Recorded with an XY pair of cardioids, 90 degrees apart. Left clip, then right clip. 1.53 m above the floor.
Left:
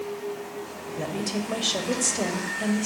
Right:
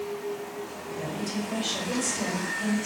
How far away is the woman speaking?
About 2 m.